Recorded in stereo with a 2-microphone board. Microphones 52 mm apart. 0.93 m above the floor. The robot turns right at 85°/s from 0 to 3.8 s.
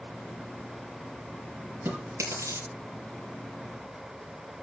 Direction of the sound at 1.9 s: 45° right (ahead or behind).